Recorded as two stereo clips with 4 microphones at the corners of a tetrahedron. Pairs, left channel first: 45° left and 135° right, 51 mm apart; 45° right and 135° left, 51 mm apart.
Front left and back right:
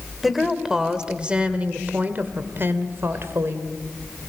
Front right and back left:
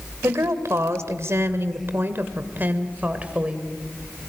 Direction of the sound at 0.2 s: 140° left.